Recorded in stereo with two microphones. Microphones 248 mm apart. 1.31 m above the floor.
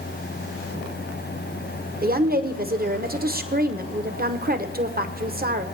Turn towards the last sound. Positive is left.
turn(degrees=-40)  # may be behind; listen again after turning